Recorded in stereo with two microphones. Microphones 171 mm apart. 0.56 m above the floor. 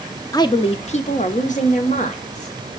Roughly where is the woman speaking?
Left.